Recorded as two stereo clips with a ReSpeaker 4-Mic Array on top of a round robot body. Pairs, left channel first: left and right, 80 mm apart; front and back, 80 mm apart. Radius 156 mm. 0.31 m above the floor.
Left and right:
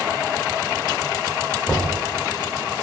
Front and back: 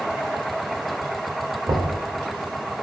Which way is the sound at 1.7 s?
155° left.